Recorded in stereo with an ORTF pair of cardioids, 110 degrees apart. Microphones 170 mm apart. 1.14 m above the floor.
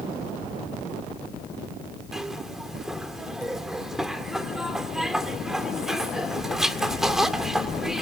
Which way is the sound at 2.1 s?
5° right.